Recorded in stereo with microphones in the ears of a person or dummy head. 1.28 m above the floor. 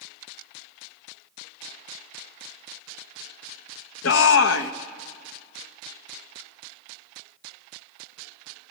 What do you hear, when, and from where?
4.0 s a shout: 75° left (ahead or behind), 0.9 m